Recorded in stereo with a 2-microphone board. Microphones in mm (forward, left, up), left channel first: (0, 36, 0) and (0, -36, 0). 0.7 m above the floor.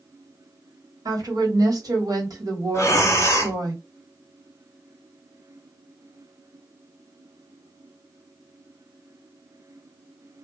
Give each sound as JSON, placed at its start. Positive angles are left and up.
{"t": 1.1, "sound": "a woman speaking", "side_deg": -60, "distance_m": 1.5}
{"t": 2.7, "sound": "breathing", "side_deg": 45, "distance_m": 0.7}